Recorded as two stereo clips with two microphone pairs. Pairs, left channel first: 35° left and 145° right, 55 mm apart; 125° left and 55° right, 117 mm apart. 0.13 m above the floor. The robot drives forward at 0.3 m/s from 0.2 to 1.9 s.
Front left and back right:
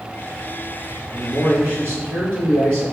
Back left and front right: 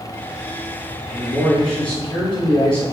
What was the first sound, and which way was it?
A man speaking, 155° right.